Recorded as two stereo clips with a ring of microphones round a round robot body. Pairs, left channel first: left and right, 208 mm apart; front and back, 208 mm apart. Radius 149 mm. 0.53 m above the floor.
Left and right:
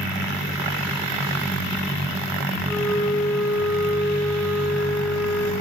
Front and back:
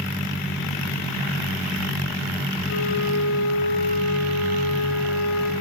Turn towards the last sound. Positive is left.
turn(degrees=5)